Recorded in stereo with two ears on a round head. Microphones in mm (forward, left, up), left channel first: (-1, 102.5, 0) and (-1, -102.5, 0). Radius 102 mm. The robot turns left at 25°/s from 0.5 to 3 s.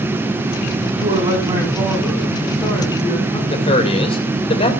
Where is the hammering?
No hammering in this recording.